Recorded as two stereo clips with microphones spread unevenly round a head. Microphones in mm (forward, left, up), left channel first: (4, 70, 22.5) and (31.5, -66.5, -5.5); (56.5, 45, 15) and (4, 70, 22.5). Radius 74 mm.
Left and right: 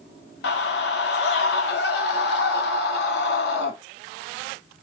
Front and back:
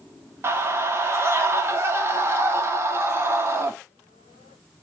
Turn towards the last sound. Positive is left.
turn(degrees=110)